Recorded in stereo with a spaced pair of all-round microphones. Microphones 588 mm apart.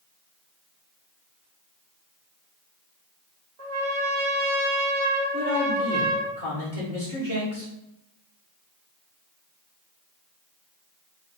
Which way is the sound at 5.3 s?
75° right (ahead or behind).